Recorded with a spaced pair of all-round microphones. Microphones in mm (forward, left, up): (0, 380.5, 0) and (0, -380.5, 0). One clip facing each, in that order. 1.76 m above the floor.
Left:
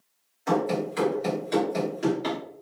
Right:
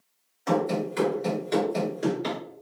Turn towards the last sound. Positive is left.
turn(degrees=0)  # may be behind; listen again after turning